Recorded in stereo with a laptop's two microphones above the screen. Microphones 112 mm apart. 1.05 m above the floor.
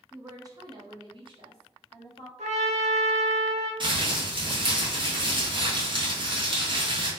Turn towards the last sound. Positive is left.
turn(degrees=-45)  # may be behind; listen again after turning